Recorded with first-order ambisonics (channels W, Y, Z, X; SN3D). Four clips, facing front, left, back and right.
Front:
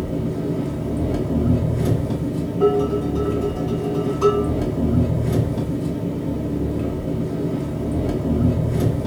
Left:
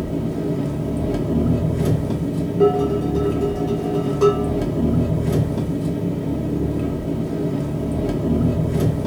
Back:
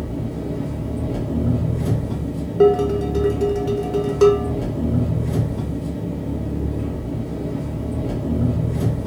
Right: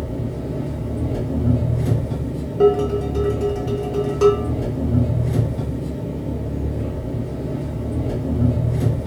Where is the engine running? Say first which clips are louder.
Left 4 dB, front 3 dB; 65° left, 0.8 m.